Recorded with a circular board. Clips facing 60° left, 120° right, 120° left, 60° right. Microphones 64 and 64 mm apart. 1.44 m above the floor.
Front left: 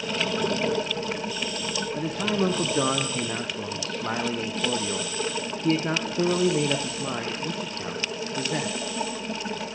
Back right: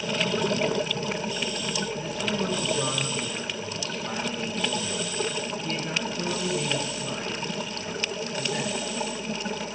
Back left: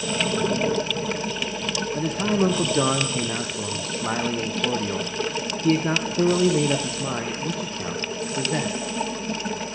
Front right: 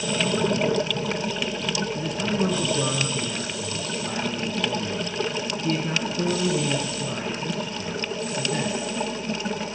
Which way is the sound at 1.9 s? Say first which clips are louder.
Front left 3 dB, back left 7 dB; 100° left.